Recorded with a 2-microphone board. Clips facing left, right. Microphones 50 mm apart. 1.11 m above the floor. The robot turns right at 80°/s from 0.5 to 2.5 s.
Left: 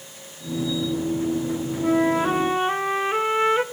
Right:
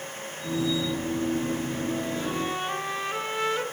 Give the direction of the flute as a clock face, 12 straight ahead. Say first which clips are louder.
Left 9 dB; 9 o'clock.